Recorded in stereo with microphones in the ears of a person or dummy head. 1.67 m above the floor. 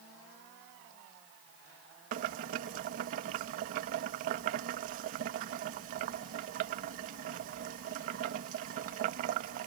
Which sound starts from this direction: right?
Boiling, at 2.1 s.